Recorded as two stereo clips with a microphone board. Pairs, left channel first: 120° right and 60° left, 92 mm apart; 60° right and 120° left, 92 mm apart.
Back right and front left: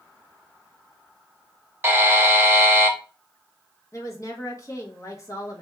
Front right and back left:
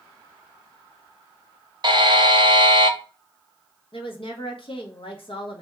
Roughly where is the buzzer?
Behind left.